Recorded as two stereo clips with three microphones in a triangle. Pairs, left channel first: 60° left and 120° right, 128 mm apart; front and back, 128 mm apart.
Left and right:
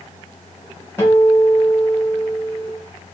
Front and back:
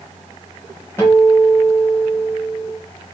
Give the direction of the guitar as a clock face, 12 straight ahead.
11 o'clock.